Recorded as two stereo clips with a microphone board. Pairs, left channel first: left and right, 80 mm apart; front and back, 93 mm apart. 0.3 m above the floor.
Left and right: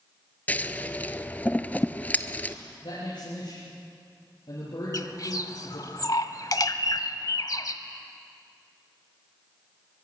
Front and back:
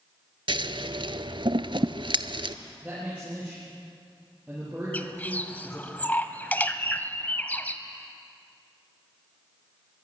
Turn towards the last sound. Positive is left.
turn(degrees=65)